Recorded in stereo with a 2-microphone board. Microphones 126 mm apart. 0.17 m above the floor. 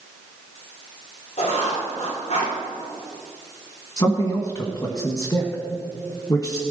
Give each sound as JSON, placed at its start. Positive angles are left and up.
{"t": 1.4, "sound": "writing", "side_deg": 75, "distance_m": 4.5}
{"t": 4.0, "sound": "a man speaking", "side_deg": 30, "distance_m": 1.6}